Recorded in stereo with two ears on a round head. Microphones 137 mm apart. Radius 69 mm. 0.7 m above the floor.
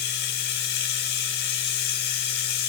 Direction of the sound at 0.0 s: 75° left (ahead or behind).